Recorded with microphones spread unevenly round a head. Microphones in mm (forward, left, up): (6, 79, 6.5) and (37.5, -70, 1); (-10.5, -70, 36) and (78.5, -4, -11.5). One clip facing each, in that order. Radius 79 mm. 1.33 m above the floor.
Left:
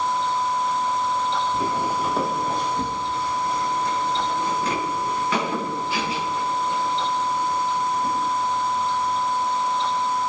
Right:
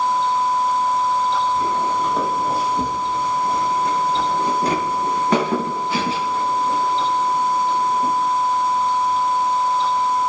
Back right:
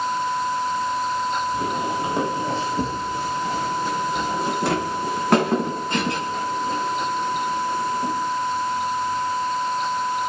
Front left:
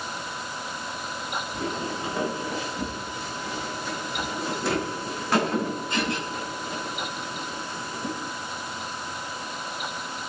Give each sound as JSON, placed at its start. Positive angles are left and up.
{"t": 1.5, "sound": "footsteps", "azimuth_deg": 165, "distance_m": 1.7}